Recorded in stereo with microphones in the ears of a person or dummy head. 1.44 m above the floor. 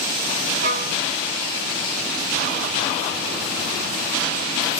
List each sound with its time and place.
0.6 s a violin: 50° right (ahead or behind), 0.9 m